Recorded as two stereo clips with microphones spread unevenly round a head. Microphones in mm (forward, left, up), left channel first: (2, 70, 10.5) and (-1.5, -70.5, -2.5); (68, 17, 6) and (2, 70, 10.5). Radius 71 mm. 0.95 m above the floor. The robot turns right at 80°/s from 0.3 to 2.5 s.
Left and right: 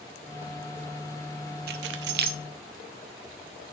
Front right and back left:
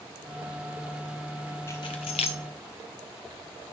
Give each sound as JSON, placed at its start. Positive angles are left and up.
{"t": 1.7, "sound": "keys jangling", "azimuth_deg": -115, "distance_m": 0.9}